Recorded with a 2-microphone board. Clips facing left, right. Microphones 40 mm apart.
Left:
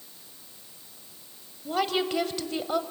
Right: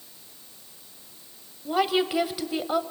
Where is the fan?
No fan in this recording.